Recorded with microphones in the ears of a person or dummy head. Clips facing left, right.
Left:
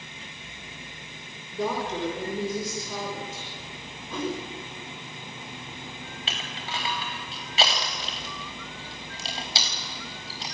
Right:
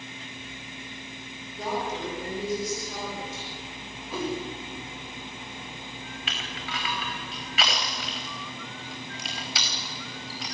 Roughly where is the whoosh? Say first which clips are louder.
Even; centre.